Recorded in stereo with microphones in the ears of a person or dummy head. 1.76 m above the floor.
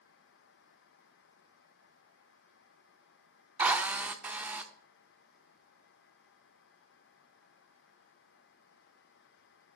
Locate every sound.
3.6 s a drill: 15° right (ahead or behind), 0.6 m